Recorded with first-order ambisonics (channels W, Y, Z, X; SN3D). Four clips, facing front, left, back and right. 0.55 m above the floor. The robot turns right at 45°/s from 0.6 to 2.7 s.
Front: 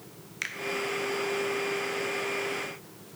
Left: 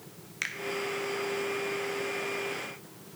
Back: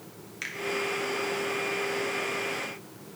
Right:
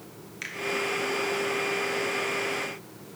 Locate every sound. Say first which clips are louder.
0.4 s a finger snap: left 3 dB, front 2 dB; 50° left, 0.7 m